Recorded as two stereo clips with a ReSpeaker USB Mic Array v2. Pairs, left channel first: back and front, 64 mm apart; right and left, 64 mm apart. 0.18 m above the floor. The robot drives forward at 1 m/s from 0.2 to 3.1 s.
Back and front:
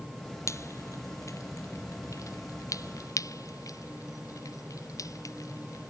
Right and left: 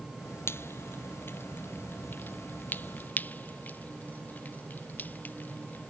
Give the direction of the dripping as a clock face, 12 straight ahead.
5 o'clock.